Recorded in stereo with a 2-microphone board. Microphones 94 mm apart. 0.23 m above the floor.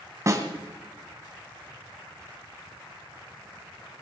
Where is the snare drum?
35° right (ahead or behind), 1.7 m.